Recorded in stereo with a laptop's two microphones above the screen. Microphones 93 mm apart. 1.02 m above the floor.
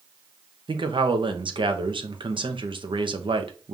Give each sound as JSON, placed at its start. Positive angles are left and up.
{"t": 0.7, "sound": "a man speaking", "side_deg": -60, "distance_m": 0.8}